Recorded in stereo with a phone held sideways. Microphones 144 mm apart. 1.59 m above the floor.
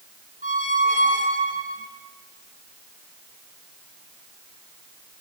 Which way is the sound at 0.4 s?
70° right (ahead or behind).